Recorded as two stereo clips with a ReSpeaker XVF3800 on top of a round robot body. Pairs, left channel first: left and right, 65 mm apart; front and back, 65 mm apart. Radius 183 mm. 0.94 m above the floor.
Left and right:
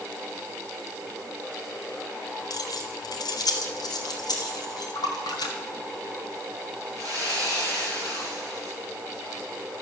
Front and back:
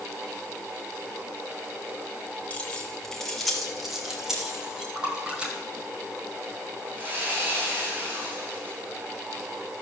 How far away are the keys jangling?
About 1.3 m.